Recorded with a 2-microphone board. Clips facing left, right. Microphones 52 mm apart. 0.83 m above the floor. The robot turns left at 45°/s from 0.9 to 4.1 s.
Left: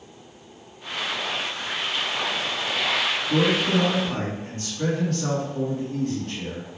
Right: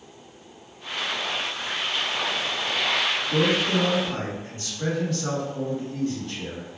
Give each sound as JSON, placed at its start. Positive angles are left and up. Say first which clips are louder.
{"t": 3.3, "sound": "a man speaking", "louder": "left 2 dB", "azimuth_deg": 100, "distance_m": 1.3}